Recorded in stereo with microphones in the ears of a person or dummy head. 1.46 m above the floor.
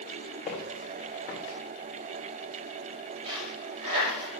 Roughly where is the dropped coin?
Right.